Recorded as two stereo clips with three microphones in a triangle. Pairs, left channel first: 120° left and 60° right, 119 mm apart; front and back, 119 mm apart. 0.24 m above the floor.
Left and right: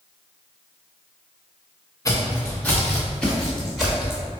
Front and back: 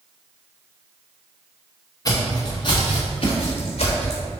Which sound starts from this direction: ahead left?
Footsteps, at 2.0 s.